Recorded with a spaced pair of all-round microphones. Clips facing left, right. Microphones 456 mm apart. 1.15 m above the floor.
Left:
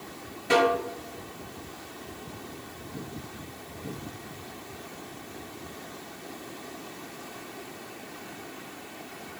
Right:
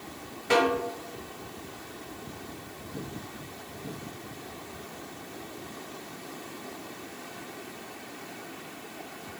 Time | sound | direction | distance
0.5 | a snare drum | 50° left (ahead or behind) | 1.7 m